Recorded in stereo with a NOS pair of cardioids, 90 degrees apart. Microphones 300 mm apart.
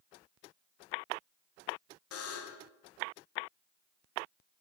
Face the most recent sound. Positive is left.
turn(degrees=55)